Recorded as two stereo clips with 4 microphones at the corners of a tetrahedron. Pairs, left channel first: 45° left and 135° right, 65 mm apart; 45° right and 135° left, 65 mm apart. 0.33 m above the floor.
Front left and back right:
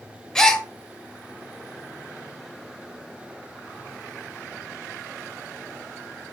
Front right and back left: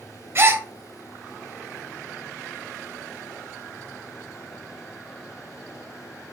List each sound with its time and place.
0.3 s a gasp: 120° left, 1.0 m